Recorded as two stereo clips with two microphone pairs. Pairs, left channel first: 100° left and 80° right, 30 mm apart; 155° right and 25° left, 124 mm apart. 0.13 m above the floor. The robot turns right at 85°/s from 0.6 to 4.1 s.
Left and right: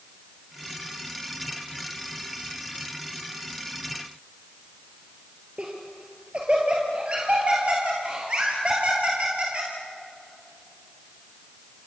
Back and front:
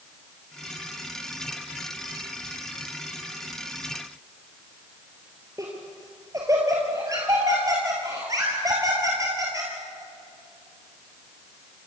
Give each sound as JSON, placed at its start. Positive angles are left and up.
{"t": 5.6, "sound": "laughter", "azimuth_deg": -35, "distance_m": 2.5}